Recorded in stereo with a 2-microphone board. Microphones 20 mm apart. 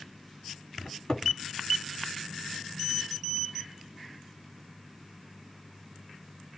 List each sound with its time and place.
0.8 s a cupboard door: 40° left (ahead or behind), 1.8 m